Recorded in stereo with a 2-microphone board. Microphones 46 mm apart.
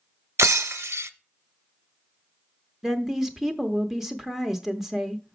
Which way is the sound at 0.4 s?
80° right.